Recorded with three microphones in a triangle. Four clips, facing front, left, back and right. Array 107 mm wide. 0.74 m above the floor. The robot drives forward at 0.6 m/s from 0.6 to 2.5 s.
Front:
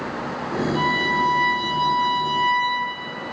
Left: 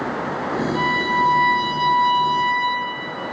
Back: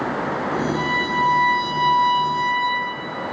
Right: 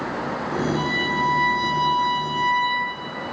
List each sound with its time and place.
0.7 s a violin: 130° left, 3 m; by 2.8 s 145° left, 3.5 m